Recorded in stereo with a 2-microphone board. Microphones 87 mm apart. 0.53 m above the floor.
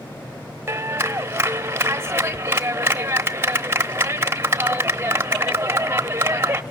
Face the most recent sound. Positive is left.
turn(degrees=-30)  # may be behind; listen again after turning